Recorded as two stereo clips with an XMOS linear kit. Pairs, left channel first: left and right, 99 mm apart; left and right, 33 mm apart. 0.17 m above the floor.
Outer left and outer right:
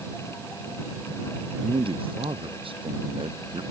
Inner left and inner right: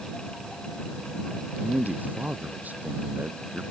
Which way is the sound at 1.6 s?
65° right (ahead or behind).